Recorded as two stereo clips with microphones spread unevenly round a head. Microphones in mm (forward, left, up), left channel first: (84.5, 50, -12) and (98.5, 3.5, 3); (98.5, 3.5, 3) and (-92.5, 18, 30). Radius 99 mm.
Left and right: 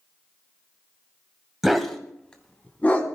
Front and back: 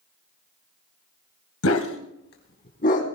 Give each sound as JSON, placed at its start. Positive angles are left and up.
{"t": 1.6, "sound": "a dog barking", "azimuth_deg": 10, "distance_m": 2.0}